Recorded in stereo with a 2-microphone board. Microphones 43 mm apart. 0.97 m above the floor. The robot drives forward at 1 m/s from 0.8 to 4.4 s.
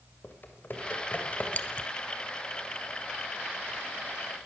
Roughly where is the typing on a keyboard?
Left.